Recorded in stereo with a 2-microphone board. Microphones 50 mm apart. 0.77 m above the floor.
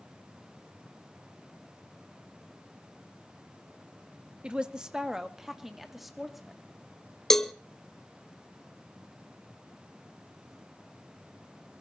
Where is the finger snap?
I don't hear a finger snap.